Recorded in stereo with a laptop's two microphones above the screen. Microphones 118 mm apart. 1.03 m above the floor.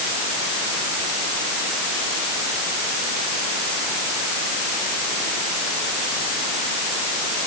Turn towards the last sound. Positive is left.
No sound to turn to.